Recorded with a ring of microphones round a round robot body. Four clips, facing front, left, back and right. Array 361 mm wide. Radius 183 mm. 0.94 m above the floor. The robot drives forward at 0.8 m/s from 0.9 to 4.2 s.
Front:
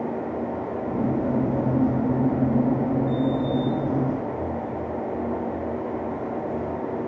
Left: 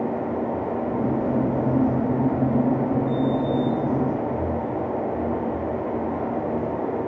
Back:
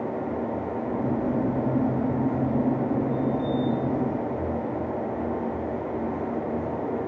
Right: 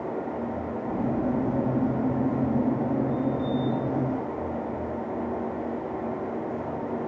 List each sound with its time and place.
Only background noise.